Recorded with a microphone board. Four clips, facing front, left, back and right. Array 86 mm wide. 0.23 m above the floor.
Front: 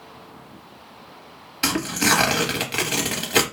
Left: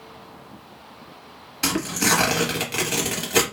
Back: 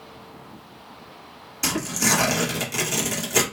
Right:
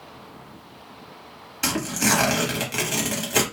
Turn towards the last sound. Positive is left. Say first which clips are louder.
# left 1 dB, front 3 dB
turn(degrees=10)